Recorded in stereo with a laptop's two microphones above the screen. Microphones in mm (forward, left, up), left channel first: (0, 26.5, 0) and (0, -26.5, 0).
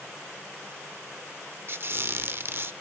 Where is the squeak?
45° right (ahead or behind), 0.7 m.